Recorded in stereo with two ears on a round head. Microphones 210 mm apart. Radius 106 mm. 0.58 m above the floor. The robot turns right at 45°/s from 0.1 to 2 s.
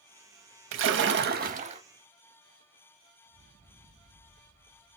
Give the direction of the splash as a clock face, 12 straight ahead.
3 o'clock.